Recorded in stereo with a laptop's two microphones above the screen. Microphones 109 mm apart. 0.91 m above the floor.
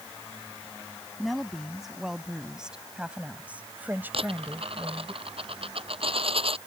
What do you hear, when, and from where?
1.2 s a woman speaking: centre (ahead or behind); by 5.1 s 25° right (ahead or behind)
4.1 s a dropped coin: 55° right (ahead or behind)